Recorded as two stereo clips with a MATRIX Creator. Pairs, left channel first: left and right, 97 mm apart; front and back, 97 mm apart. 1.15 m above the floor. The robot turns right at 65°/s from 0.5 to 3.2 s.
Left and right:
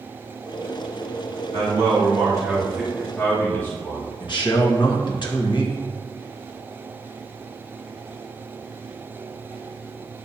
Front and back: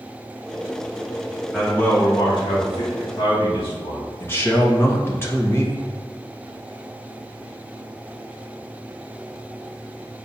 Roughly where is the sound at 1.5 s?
Right.